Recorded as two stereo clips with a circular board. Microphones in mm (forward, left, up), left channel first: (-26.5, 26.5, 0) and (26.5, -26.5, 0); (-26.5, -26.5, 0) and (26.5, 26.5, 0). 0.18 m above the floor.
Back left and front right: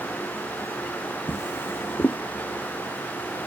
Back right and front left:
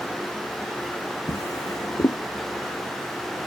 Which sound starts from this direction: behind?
A drawer, at 1.3 s.